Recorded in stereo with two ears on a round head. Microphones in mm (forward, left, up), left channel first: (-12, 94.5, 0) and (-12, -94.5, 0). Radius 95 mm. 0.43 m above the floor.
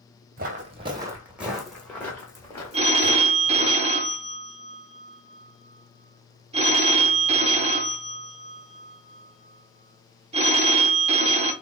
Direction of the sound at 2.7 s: 30° right (ahead or behind).